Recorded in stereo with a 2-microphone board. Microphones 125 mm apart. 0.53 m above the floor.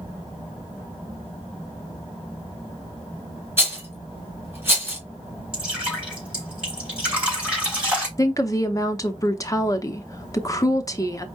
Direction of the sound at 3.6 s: 20° right (ahead or behind).